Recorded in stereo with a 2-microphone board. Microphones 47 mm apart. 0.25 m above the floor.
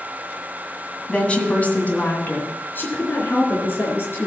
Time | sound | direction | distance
1.1 | a woman speaking | 25° left (ahead or behind) | 2 m